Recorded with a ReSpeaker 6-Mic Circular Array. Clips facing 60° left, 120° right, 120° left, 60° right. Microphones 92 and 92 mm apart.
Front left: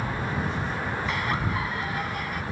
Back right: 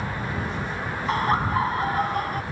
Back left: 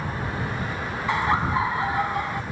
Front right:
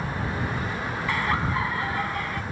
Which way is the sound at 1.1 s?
170° right.